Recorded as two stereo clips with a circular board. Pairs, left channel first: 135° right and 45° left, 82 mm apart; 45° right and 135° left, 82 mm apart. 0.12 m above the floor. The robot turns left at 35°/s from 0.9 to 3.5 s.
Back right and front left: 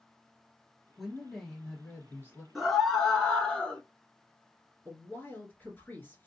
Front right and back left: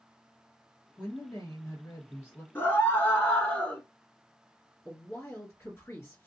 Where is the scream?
40° right, 1.1 m; by 3.8 s 75° right, 1.1 m.